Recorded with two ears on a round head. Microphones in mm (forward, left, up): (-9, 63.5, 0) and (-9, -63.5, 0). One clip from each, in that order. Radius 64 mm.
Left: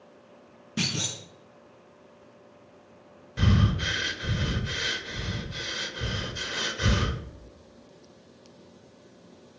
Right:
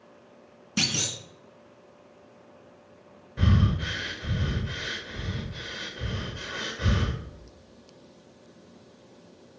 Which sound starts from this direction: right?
A clunk, at 0.8 s.